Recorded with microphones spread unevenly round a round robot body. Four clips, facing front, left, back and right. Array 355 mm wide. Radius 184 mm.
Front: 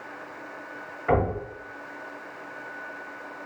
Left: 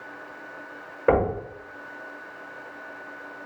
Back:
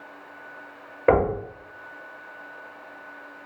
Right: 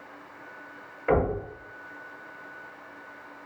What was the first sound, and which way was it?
Knocking, 135° left.